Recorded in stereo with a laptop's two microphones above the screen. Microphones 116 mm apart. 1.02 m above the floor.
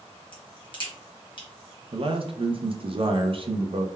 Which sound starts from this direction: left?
A crack, at 0.3 s.